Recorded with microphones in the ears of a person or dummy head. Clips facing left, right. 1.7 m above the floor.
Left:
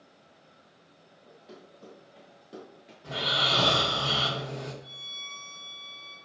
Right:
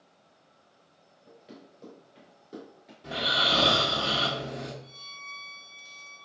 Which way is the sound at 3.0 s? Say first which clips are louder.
Right 1 dB; 15° right (ahead or behind).